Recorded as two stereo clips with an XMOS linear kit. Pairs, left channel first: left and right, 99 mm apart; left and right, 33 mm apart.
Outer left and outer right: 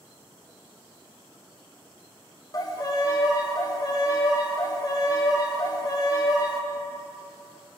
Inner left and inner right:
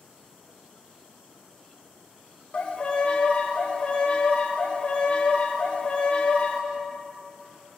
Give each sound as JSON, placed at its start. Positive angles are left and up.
{"t": 2.5, "sound": "a violin", "side_deg": 35, "distance_m": 0.6}